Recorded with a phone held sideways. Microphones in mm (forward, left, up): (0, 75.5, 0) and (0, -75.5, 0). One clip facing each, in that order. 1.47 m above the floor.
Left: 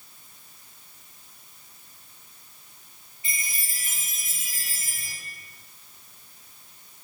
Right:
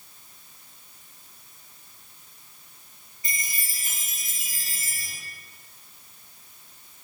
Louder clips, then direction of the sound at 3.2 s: Right 1 dB; 40° right (ahead or behind).